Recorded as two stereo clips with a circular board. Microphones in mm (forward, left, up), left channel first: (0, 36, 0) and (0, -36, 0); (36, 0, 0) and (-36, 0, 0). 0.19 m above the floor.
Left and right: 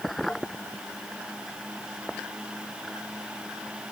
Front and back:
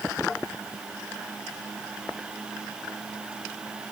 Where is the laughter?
No laughter in this recording.